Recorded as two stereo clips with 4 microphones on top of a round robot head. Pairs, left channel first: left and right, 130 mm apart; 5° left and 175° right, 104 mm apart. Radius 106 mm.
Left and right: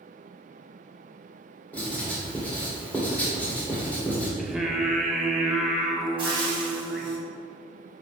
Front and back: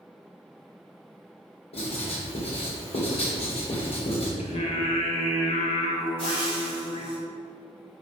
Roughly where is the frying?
Ahead right.